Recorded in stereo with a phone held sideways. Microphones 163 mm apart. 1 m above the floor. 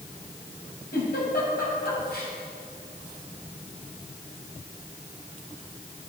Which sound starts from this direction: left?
A giggle, at 0.9 s.